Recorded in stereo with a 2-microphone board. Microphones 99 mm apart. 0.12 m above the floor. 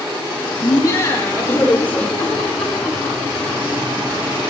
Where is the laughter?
40° left (ahead or behind), 4.5 m; by 3.5 s centre (ahead or behind), 7 m.